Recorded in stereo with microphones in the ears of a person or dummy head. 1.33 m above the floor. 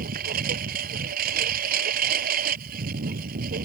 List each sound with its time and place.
0.0 s a lawn mower: 50° right (ahead or behind)